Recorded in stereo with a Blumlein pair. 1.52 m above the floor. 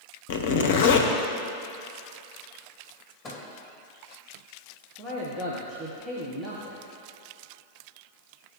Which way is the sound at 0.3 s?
50° left.